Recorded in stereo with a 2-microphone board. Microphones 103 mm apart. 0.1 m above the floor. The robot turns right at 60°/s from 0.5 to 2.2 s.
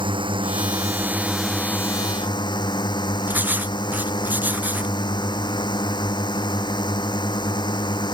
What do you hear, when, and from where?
0.0 s a drone: 55° right; by 8.2 s 45° left
3.3 s writing: 15° right (ahead or behind)